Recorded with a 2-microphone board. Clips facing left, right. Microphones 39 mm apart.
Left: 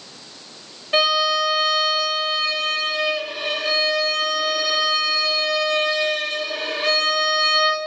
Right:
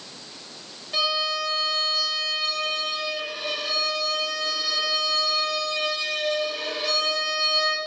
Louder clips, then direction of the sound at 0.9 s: Left 7 dB; 60° left (ahead or behind).